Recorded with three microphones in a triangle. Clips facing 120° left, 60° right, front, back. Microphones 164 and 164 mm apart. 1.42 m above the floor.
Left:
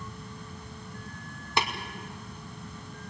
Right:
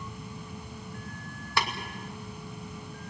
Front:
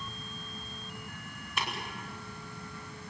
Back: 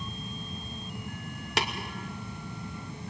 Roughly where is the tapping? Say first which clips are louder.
Left 1 dB, back 6 dB; behind.